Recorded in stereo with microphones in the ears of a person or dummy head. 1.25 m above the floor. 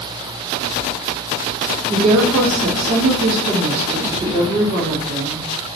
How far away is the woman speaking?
About 1.9 m.